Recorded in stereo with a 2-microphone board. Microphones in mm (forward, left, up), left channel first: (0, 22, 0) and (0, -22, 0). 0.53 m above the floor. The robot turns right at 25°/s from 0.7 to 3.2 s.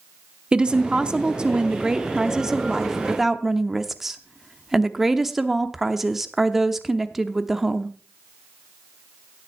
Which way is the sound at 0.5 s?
25° right (ahead or behind).